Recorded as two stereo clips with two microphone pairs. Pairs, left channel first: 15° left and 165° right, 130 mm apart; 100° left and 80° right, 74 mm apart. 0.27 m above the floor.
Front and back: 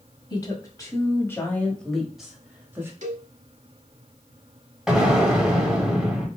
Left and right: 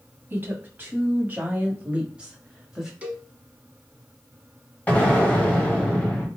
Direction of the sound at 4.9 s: 120° left.